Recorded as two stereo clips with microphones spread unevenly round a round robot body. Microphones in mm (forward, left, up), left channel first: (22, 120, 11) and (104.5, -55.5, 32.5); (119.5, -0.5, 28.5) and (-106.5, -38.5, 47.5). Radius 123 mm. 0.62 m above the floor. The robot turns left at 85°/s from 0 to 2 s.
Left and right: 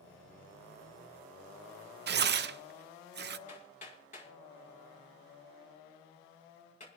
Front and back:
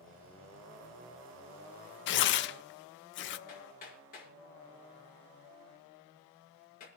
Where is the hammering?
65° left, 6 m.